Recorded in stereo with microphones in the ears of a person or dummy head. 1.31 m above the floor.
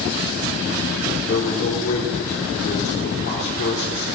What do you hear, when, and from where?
1.2 s a man speaking: 50° left (ahead or behind), 3 m